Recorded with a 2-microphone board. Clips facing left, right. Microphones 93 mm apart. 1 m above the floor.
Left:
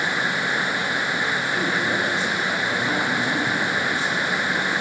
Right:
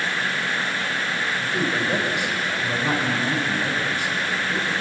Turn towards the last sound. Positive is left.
turn(degrees=-15)  # may be behind; listen again after turning